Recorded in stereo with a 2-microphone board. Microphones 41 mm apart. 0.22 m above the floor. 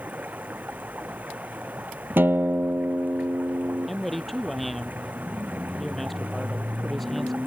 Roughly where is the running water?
Right.